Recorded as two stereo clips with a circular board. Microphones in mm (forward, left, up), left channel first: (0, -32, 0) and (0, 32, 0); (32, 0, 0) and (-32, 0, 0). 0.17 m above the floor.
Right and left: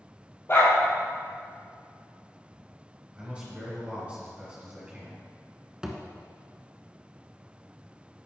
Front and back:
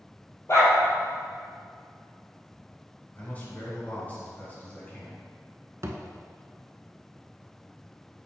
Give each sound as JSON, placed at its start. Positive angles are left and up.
{"t": 0.5, "sound": "a dog barking", "azimuth_deg": -40, "distance_m": 2.0}
{"t": 3.1, "sound": "a man speaking", "azimuth_deg": 35, "distance_m": 1.9}
{"t": 5.8, "sound": "a thud", "azimuth_deg": 165, "distance_m": 0.7}